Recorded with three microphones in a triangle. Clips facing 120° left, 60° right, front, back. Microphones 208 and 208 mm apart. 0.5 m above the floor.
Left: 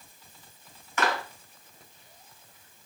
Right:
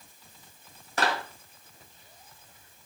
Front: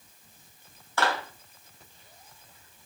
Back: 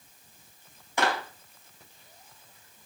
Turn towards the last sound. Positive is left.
turn(degrees=-110)